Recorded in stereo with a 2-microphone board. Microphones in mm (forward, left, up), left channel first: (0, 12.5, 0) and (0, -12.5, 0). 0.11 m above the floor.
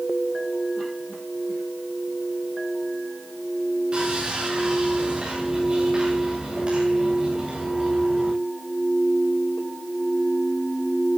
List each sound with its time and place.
3.9 s sawing: 45° right (ahead or behind), 9 m